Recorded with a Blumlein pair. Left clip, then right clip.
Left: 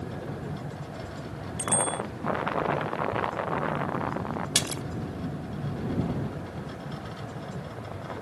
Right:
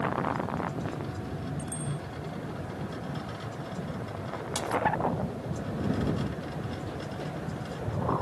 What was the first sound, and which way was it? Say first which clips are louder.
A bicycle bell: left 10 dB; 55° left.